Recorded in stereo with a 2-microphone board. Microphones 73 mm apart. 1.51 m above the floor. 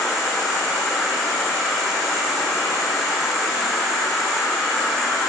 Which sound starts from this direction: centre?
An insect, at 0.0 s.